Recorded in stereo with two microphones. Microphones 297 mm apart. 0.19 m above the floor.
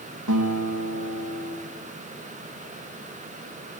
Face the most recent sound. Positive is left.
turn(degrees=-80)